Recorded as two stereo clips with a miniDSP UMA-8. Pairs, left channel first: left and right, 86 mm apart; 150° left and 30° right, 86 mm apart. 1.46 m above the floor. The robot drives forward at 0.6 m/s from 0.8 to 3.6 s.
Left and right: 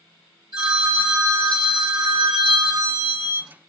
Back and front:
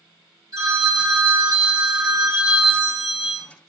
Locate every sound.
0.5 s a phone ringing: 70° right, 2.5 m; by 3.5 s 110° right, 2.5 m